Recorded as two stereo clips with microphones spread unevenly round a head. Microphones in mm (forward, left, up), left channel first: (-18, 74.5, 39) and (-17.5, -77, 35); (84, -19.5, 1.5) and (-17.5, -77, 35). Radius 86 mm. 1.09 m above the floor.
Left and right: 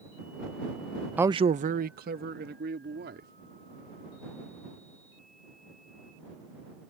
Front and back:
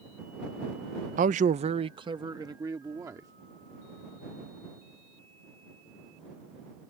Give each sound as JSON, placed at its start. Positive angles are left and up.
{"t": 1.2, "sound": "a man speaking", "azimuth_deg": -170}